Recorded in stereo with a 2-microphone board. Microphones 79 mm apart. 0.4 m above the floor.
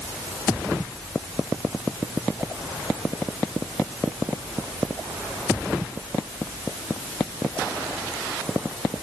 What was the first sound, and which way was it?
Only background noise.